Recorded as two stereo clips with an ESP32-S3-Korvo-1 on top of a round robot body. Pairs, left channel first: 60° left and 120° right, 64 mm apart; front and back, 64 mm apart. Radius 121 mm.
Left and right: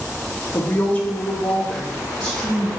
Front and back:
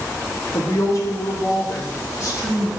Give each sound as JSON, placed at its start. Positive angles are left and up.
{"t": 0.5, "sound": "a woman speaking", "azimuth_deg": 20, "distance_m": 0.9}